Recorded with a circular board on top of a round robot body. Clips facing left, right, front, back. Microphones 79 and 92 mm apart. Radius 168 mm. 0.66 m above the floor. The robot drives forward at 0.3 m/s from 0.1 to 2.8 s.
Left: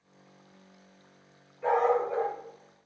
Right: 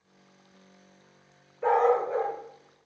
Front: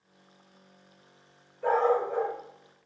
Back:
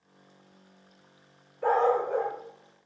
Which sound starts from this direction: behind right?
A dog barking, at 1.6 s.